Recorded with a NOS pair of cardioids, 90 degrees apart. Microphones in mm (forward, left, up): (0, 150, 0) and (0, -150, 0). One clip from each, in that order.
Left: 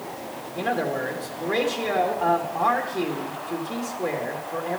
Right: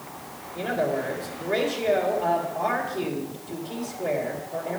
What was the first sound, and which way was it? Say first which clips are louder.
A man speaking: even; 40° left.